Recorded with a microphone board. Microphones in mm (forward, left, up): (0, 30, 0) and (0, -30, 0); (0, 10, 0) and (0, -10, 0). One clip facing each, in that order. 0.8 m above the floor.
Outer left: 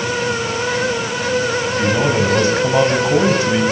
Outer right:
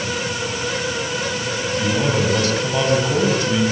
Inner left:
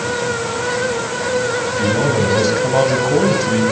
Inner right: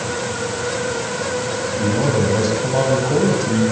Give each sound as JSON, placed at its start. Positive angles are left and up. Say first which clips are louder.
{"t": 1.8, "sound": "a man speaking", "louder": "outer left 3 dB, inner left 1 dB", "side_deg": 25, "distance_m": 4.5}